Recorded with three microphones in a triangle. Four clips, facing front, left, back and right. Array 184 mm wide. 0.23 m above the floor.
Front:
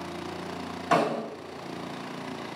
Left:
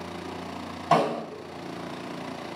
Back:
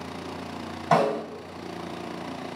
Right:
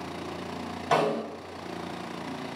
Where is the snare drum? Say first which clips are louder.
Left 2 dB, back 3 dB; 155° left, 1.6 m.